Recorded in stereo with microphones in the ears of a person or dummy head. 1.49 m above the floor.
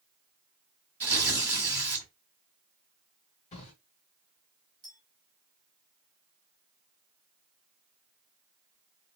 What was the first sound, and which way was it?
Tearing paper, 10° right (ahead or behind).